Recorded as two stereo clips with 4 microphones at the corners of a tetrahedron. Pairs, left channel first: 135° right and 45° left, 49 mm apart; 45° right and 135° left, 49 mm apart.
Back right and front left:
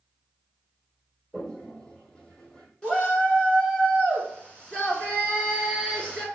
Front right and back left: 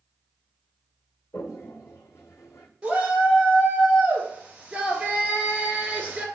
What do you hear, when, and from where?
1.3 s a toilet flushing: 65° right, 1.2 m
2.8 s a shout: straight behind, 1.2 m